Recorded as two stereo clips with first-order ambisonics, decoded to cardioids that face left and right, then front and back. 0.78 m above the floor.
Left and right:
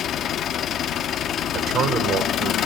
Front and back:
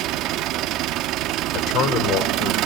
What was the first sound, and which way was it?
An engine running, 145° left.